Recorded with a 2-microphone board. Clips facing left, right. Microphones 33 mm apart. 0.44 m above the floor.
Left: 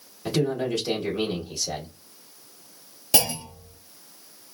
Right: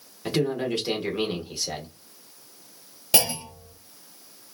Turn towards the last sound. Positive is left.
turn(degrees=-20)  # may be behind; listen again after turning